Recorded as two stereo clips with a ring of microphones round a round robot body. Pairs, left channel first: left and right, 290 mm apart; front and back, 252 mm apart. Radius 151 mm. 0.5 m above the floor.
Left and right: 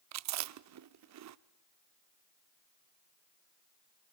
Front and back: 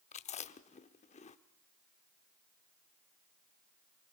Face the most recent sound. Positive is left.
turn(degrees=-65)